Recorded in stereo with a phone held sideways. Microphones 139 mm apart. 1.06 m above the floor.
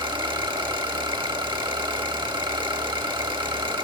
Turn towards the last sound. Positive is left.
turn(degrees=-35)  # may be behind; listen again after turning